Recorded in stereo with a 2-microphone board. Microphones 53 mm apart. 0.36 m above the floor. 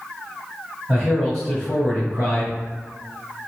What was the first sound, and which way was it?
A man speaking, 15° left (ahead or behind).